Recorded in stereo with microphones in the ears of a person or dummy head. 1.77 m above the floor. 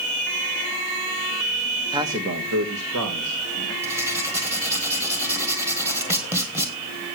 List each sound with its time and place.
1.9 s a man speaking: 15° right (ahead or behind), 0.8 m; by 3.7 s 90° right, 2.5 m
3.8 s writing: 20° right (ahead or behind), 1.8 m